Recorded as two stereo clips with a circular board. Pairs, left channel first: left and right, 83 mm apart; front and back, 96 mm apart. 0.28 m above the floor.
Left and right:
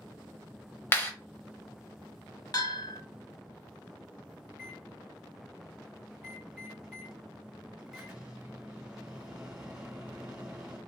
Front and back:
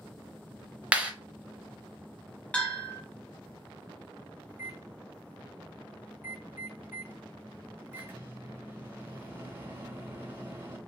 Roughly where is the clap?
Behind left.